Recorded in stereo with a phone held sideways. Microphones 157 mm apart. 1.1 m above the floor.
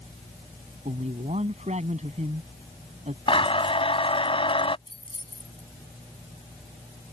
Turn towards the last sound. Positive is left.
turn(degrees=35)  # may be behind; listen again after turning